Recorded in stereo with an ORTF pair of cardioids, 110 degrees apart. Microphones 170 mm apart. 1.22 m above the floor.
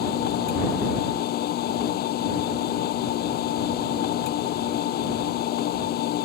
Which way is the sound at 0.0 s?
70° left.